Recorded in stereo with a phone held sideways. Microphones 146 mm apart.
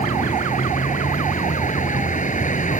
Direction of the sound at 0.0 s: 60° left (ahead or behind).